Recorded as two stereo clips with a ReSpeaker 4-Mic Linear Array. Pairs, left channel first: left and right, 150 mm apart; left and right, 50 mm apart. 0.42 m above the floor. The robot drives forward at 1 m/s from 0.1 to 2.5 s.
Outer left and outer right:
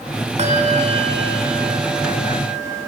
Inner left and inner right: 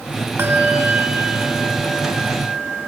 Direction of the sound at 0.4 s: 50° right (ahead or behind).